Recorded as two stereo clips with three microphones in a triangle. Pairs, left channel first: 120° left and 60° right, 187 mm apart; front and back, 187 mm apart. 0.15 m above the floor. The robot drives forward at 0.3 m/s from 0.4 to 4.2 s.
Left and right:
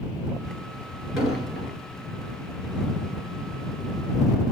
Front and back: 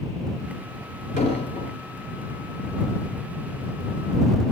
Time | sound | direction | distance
1.2 | an explosion | 30° left | 1.8 m